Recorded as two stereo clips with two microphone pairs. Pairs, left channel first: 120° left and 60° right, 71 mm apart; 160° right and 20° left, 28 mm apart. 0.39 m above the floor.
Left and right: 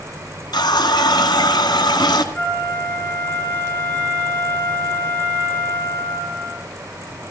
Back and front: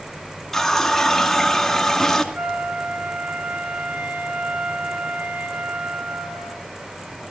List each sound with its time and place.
0.5 s a running tap: 120° left, 2.5 m
2.3 s a flute: 55° left, 4.5 m